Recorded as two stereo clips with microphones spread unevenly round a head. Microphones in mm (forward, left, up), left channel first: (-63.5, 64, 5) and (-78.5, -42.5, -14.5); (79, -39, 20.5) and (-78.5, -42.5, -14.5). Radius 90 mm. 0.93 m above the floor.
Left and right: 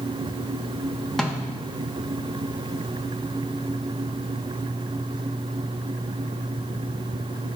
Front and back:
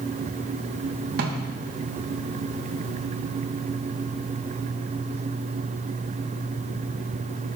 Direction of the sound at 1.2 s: 175° left.